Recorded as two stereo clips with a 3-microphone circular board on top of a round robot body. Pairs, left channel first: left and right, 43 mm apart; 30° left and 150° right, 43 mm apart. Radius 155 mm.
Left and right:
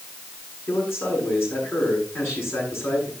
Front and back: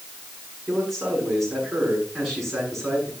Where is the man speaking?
120° left, 8.5 m.